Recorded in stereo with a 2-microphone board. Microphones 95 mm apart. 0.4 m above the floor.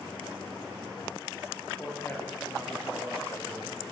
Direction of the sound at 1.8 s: 20° left (ahead or behind).